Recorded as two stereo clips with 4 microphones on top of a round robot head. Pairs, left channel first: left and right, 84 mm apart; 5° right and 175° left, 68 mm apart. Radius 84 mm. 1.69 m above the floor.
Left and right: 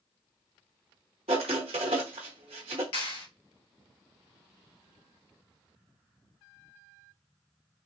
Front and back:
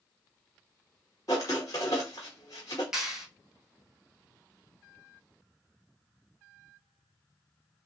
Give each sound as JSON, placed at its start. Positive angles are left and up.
{"t": 1.3, "sound": "writing", "azimuth_deg": -65, "distance_m": 0.9}
{"t": 2.9, "sound": "a clap", "azimuth_deg": 95, "distance_m": 1.3}